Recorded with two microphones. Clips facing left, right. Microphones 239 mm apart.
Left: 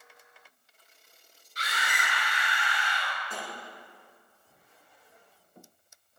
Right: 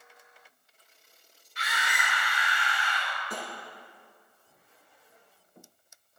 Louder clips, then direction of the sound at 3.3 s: Right 4 dB; 40° right (ahead or behind).